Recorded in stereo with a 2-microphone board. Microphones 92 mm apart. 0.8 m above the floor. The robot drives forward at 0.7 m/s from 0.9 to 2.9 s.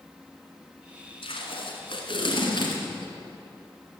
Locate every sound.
1.2 s tape being pulled: 75° left (ahead or behind), 2.0 m; by 3.1 s 55° left (ahead or behind), 2.5 m